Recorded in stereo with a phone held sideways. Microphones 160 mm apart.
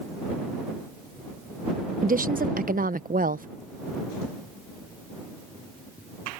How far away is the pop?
I don't hear a pop.